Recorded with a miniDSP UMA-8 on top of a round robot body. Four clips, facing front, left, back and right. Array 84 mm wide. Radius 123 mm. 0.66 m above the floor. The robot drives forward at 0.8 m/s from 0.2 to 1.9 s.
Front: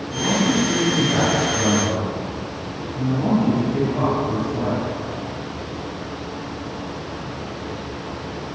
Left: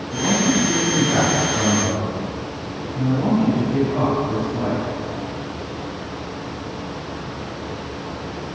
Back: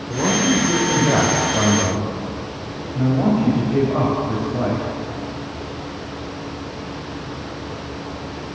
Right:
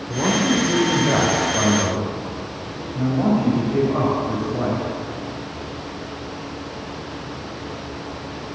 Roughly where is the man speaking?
Behind right.